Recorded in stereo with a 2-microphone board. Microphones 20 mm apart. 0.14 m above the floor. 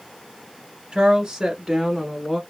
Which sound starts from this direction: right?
A woman speaking, at 0.9 s.